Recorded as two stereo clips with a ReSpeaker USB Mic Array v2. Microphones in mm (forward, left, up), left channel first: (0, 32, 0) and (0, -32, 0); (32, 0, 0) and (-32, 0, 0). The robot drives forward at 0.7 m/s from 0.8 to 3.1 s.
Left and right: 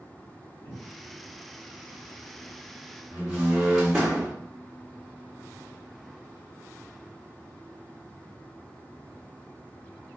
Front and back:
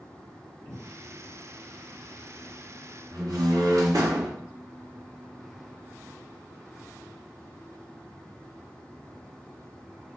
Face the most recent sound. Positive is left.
turn(degrees=-170)